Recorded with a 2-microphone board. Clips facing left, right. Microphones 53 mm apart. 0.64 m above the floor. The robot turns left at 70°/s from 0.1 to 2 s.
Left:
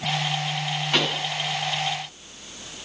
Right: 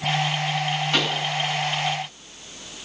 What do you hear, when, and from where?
0.9 s a pop: centre (ahead or behind), 6 m; by 1.2 s 20° right (ahead or behind), 6 m